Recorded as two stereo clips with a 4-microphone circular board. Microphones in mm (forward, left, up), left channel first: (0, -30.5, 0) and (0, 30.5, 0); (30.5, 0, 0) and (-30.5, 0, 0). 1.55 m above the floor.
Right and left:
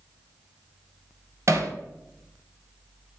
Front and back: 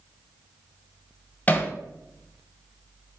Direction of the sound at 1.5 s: 60° left.